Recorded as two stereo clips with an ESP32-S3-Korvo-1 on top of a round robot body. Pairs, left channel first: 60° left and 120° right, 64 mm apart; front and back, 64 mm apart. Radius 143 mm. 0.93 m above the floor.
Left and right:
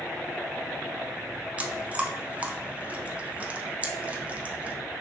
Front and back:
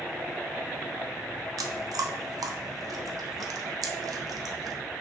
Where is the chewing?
175° left, 0.5 m.